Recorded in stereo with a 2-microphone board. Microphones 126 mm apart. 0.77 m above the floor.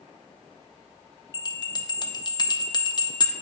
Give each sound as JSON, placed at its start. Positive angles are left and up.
{"t": 1.3, "sound": "a bell", "side_deg": 35, "distance_m": 0.5}